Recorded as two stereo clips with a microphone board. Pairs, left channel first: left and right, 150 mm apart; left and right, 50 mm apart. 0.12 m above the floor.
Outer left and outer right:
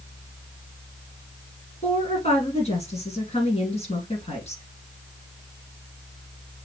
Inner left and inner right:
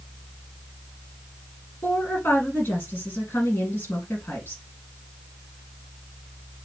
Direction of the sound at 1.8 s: 45° left (ahead or behind).